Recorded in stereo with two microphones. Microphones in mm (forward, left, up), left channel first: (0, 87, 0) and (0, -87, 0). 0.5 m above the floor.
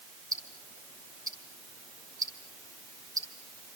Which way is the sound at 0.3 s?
20° right (ahead or behind).